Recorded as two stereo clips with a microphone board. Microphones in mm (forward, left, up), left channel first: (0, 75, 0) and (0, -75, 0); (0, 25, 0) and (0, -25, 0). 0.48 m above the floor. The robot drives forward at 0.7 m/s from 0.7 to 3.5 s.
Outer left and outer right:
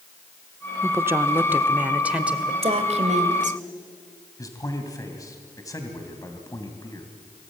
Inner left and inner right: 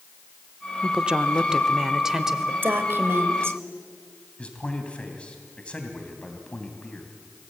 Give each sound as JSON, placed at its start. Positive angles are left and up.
{"t": 0.8, "sound": "a woman speaking", "side_deg": -20, "distance_m": 0.7}
{"t": 2.6, "sound": "a woman speaking", "side_deg": -45, "distance_m": 1.9}
{"t": 4.4, "sound": "a man speaking", "side_deg": 20, "distance_m": 2.5}